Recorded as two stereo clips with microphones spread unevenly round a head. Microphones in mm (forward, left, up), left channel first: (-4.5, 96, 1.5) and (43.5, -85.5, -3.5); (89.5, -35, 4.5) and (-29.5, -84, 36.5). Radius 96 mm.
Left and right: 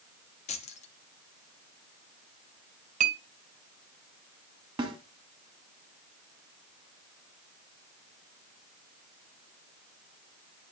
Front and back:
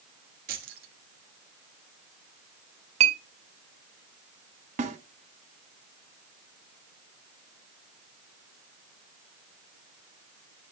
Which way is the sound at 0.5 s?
165° left.